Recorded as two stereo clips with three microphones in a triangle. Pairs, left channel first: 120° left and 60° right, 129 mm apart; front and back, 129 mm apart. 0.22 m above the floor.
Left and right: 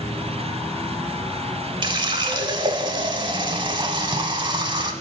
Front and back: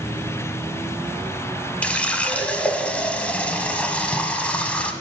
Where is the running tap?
75° right, 0.9 m.